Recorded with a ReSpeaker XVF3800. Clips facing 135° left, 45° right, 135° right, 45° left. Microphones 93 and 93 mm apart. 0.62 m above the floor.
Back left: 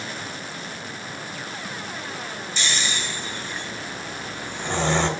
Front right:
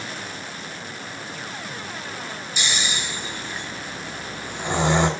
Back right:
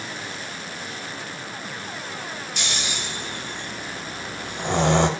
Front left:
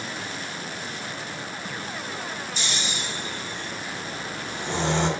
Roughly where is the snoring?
Behind right.